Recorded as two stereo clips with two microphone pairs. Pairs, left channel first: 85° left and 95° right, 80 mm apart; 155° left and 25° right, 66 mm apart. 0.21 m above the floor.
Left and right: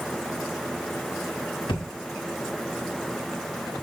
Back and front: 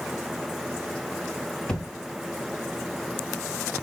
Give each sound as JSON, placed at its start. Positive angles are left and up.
{"t": 1.7, "sound": "a thud", "azimuth_deg": 75, "distance_m": 2.5}